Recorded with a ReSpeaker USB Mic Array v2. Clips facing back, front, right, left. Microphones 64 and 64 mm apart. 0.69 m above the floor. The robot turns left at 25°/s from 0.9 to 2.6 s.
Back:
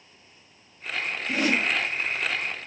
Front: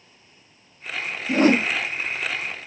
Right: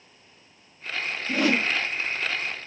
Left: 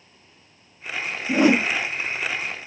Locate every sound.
1.3 s a whoosh: 35° left, 0.6 m; by 1.7 s 25° left, 0.6 m